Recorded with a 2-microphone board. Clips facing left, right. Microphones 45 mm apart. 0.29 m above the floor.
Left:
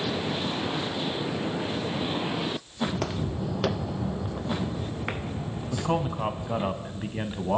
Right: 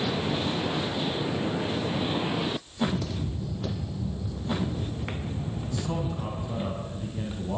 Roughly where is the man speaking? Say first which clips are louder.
Left 5 dB; left.